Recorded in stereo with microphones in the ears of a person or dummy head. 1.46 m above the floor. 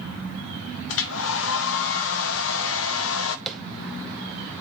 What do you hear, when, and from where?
0.9 s a hair dryer: 70° left (ahead or behind), 0.6 m
3.5 s tapping: centre (ahead or behind), 0.7 m